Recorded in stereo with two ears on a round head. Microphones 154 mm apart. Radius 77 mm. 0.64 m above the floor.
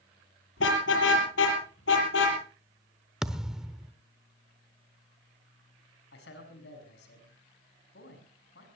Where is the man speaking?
70° left (ahead or behind), 6.5 m.